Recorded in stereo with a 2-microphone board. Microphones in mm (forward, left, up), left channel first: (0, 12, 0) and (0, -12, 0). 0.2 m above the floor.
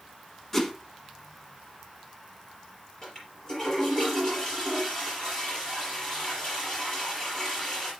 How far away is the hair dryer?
I don't hear a hair dryer.